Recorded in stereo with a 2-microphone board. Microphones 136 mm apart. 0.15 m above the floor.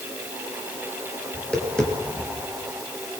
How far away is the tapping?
About 3.5 m.